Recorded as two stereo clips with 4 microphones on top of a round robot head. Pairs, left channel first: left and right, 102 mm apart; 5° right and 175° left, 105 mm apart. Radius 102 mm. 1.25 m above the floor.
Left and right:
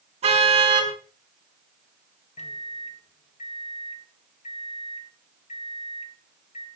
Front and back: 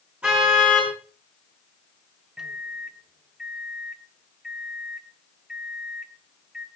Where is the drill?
No drill in this recording.